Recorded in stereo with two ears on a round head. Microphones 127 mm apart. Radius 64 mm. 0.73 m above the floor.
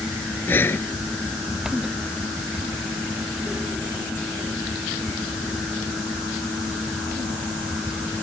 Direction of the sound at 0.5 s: 15° left (ahead or behind).